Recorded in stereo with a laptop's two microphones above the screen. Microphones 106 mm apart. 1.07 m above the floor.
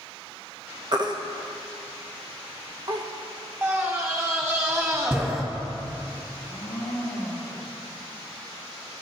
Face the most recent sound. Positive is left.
turn(degrees=15)  # may be behind; listen again after turning